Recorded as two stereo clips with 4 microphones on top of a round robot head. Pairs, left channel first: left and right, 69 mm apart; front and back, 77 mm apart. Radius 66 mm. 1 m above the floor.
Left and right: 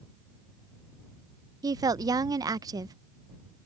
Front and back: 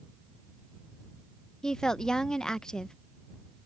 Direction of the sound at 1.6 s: 80° right.